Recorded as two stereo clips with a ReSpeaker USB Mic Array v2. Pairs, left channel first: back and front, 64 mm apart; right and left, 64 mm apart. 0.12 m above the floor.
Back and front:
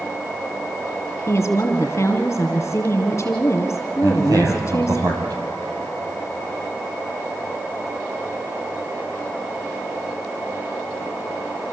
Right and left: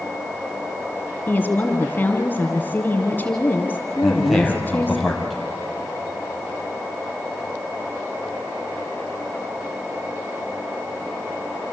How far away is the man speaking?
About 3.5 m.